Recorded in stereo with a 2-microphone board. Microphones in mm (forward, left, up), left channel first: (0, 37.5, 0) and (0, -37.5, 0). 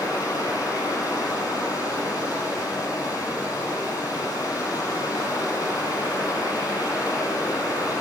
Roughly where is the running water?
Left.